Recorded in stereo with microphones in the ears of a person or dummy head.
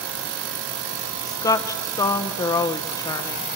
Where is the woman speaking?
20° left (ahead or behind), 0.9 m.